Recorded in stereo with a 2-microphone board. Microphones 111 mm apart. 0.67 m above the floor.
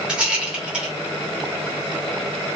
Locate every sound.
0.1 s a rattle: 10° right (ahead or behind), 1.0 m